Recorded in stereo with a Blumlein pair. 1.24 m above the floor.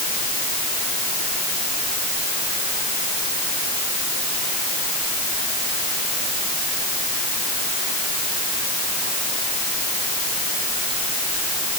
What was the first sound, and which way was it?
Only background noise.